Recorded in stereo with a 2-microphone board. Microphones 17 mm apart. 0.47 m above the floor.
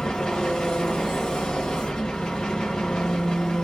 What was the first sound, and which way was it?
An engine running, 65° left (ahead or behind).